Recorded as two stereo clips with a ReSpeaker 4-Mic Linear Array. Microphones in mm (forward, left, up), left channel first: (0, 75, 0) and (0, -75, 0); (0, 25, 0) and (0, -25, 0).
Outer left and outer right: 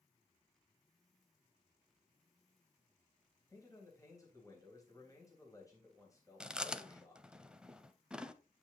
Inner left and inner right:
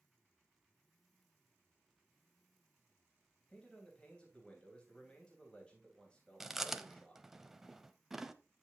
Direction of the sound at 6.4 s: 5° right (ahead or behind).